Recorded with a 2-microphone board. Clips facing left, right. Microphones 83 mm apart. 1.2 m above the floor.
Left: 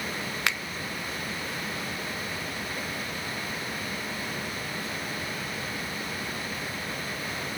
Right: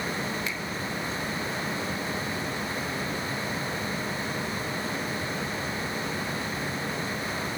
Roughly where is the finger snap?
Left.